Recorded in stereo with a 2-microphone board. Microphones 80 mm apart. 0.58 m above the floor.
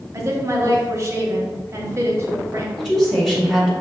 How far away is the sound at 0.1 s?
About 0.9 m.